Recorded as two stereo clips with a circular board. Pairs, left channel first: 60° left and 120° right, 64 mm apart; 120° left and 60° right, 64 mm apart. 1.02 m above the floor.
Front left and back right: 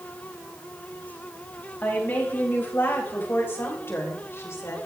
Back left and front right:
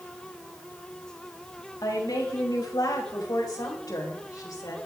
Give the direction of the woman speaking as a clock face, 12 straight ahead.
8 o'clock.